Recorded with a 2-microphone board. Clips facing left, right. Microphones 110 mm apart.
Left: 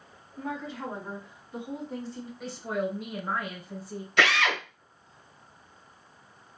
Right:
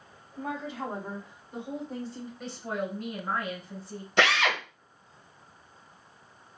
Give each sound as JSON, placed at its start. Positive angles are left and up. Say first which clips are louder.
{"t": 0.4, "sound": "a woman speaking", "louder": "right 1 dB", "side_deg": -40, "distance_m": 1.8}
{"t": 2.4, "sound": "a woman speaking", "louder": "left 3 dB", "side_deg": 0, "distance_m": 1.1}
{"t": 4.2, "sound": "a drill", "louder": "even", "side_deg": -30, "distance_m": 1.0}